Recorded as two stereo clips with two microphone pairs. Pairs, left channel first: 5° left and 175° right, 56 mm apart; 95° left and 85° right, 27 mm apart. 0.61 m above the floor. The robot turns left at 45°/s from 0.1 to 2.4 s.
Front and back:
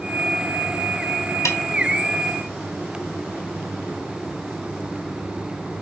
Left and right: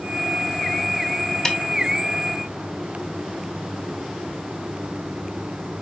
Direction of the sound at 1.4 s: 30° left.